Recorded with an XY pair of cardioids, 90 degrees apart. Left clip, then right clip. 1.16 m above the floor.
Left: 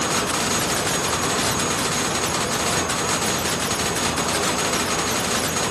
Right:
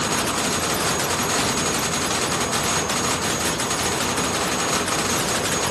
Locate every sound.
Only background noise.